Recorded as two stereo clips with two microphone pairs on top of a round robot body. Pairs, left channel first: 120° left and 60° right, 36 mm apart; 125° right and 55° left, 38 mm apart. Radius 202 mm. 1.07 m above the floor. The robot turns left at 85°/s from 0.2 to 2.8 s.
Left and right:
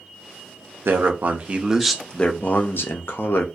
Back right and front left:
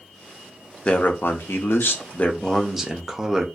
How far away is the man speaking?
About 0.5 m.